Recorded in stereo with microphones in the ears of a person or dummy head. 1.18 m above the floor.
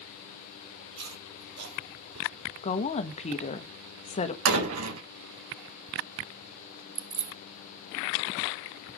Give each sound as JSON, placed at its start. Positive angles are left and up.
{"t": 0.9, "sound": "chewing", "side_deg": -70, "distance_m": 4.0}
{"t": 2.6, "sound": "a woman speaking", "side_deg": 30, "distance_m": 1.3}
{"t": 4.5, "sound": "a door slam", "side_deg": -75, "distance_m": 4.5}
{"t": 7.0, "sound": "keys jangling", "side_deg": -5, "distance_m": 1.0}